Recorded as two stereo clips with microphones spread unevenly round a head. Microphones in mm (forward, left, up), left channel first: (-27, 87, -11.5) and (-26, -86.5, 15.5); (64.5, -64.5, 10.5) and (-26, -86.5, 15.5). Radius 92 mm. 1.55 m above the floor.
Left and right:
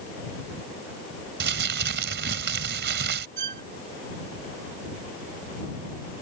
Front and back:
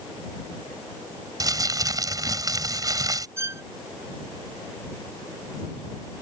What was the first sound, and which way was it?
Crumpling, 115° right.